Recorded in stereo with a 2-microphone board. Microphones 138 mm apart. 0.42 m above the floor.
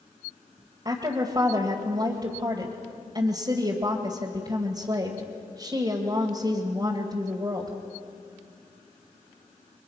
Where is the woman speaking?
30° right (ahead or behind), 2 m.